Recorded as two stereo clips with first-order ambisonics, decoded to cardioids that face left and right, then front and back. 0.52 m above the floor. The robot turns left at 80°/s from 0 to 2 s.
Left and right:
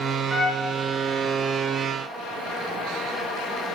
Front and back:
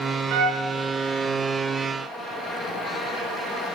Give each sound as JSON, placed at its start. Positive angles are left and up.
{"t": 0.3, "sound": "a trumpet", "azimuth_deg": -175, "distance_m": 2.5}